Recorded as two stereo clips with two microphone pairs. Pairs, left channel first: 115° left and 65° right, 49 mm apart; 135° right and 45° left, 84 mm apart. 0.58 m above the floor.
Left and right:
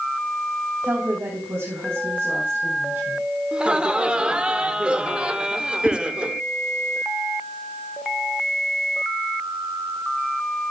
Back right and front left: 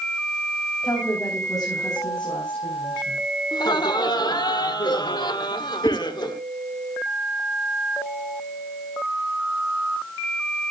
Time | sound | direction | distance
0.8 | a woman speaking | 85° right | 4.5 m
3.5 | laughter | 130° right | 1.4 m
5.8 | a whoosh | 20° right | 5.5 m